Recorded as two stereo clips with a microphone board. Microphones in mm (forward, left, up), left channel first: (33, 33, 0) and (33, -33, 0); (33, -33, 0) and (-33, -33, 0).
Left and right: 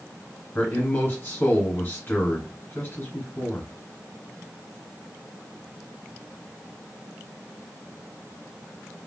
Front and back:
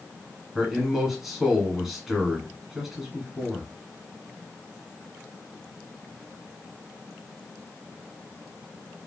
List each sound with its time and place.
0.6 s a man speaking: 100° left, 1.2 m